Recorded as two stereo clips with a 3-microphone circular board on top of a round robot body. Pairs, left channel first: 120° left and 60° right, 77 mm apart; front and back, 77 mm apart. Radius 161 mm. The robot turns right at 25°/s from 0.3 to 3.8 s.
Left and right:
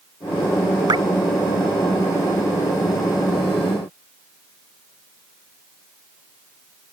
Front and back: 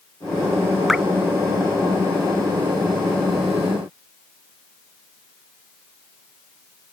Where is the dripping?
90° right; by 1.0 s 85° right.